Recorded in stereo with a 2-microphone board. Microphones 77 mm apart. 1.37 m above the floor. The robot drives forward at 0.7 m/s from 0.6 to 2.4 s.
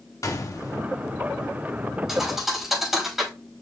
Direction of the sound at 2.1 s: 5° right (ahead or behind).